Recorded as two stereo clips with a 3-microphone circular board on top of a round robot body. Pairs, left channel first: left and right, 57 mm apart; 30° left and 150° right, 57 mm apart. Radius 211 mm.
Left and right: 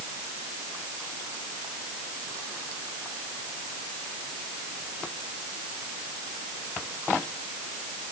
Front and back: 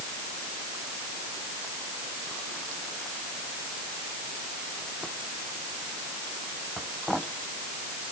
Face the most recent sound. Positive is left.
No sound to turn to.